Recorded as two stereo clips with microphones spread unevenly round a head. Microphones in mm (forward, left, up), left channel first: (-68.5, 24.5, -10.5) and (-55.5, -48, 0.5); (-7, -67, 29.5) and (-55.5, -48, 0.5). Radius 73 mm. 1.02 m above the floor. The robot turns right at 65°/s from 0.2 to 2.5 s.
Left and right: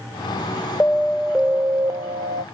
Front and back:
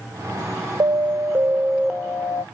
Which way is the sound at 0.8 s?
170° left.